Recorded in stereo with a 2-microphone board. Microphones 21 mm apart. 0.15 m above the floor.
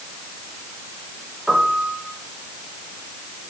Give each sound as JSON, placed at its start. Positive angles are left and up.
{"t": 1.5, "sound": "a piano", "side_deg": 0, "distance_m": 3.0}